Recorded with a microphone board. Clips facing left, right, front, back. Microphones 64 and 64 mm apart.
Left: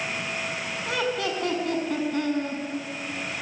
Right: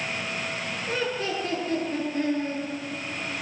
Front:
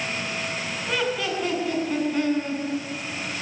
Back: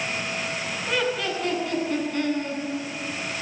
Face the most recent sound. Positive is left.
turn(degrees=75)